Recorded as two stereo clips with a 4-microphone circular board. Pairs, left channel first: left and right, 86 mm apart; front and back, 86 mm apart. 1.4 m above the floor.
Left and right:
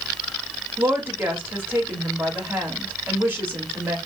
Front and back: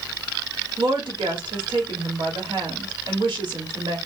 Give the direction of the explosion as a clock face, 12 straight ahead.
I don't hear an explosion.